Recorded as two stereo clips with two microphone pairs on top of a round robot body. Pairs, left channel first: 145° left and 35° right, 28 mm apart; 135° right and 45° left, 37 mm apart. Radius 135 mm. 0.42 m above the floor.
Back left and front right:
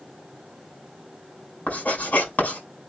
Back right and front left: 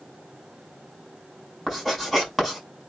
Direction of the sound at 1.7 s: 145° left.